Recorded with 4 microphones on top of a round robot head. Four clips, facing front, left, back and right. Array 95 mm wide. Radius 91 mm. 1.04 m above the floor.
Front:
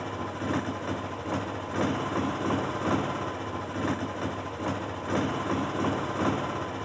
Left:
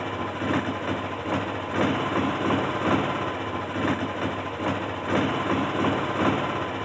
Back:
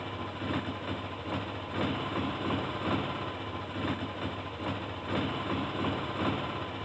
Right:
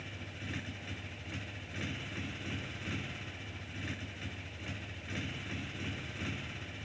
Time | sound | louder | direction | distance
0.0 | a motorcycle | left 18 dB, front 4 dB | 80° left | ?